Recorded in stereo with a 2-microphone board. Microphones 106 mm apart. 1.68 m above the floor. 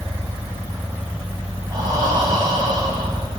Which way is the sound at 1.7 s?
35° right (ahead or behind).